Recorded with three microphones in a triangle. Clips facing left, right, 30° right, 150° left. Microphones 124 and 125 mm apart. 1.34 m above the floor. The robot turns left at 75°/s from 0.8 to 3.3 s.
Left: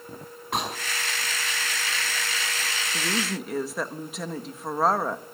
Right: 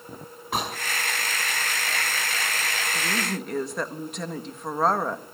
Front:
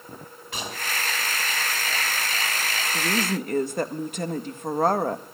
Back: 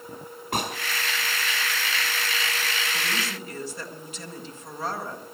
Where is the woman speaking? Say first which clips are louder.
Left 2 dB, front 6 dB; 30° left, 1.5 m; by 5.2 s straight ahead, 1.5 m.